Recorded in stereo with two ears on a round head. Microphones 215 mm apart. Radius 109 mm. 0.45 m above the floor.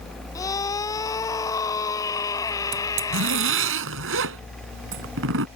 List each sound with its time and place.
0.3 s a scream: 15° left (ahead or behind)
2.7 s a zipper: 65° right (ahead or behind)